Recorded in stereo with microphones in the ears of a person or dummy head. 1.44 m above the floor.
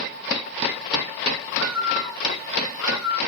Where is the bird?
Centre (ahead or behind), 0.8 m.